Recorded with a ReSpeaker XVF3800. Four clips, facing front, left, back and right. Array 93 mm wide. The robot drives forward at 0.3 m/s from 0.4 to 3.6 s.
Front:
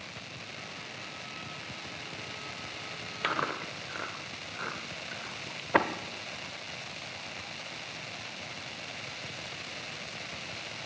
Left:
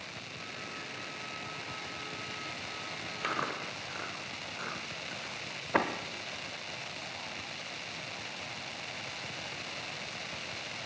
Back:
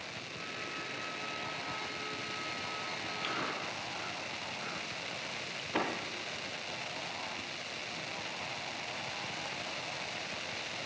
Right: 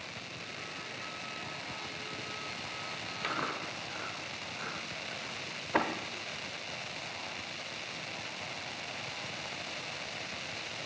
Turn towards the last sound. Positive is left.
turn(degrees=20)